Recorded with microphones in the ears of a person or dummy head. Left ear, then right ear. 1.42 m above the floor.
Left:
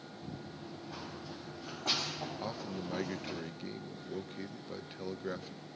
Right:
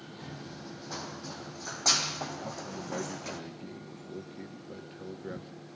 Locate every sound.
0.2 s running footsteps: 65° right (ahead or behind), 3 m; by 3.4 s 70° right (ahead or behind), 4.5 m
2.4 s a man speaking: 35° left (ahead or behind), 1.2 m